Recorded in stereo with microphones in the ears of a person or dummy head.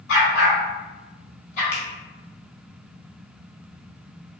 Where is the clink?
No clink in this recording.